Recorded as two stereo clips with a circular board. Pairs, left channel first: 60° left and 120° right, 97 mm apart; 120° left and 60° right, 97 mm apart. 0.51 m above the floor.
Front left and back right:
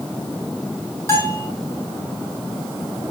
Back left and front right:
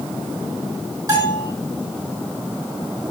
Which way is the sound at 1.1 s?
5° right.